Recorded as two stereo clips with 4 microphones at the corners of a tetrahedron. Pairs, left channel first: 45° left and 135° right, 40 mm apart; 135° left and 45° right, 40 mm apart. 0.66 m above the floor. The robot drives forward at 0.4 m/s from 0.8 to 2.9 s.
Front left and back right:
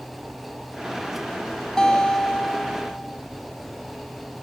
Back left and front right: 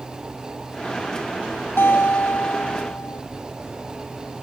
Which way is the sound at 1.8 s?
120° left.